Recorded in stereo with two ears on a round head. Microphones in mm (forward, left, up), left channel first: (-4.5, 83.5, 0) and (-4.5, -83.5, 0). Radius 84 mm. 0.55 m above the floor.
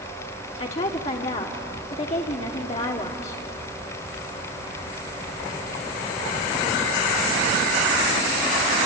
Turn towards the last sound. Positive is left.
turn(degrees=35)  # may be behind; listen again after turning